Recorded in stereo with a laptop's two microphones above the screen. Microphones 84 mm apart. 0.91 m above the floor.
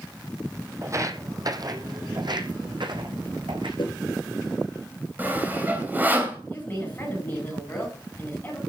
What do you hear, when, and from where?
0.8 s footsteps: 35° right (ahead or behind), 2.0 m; by 3.7 s 75° right (ahead or behind), 3.5 m
3.8 s a whoosh: 75° left (ahead or behind), 4 m
5.2 s sawing: 25° right (ahead or behind), 3 m
6.5 s a woman speaking: 20° left (ahead or behind), 7.5 m